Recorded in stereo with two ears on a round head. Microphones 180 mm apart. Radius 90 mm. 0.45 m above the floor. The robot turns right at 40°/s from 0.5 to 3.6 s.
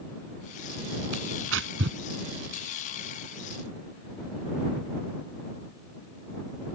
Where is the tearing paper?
75° right (ahead or behind); by 2.0 s 60° right (ahead or behind).